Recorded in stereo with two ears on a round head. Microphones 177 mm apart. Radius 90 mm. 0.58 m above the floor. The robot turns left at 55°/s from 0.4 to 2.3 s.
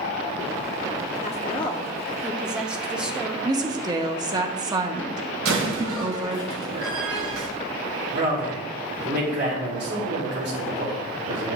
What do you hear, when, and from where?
1.2 s a woman speaking: 50° left, 0.8 m; by 3.4 s 5° right, 0.8 m
3.5 s a woman speaking: 20° right (ahead or behind), 0.8 m
5.5 s a door slam: 65° right (ahead or behind), 2 m
8.1 s a man speaking: 55° right (ahead or behind), 2 m